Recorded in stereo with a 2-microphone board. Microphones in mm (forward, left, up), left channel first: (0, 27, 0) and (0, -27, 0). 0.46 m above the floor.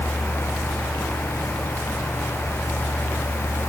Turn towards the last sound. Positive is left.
No sound to turn to.